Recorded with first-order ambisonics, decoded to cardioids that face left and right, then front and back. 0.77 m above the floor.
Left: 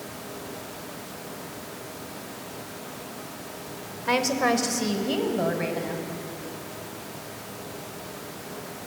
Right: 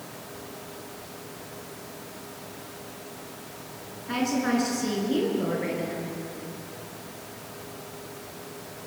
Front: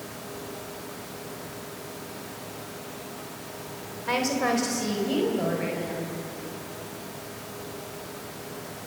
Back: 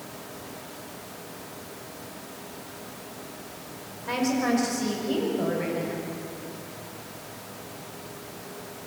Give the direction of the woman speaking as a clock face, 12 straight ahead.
10 o'clock.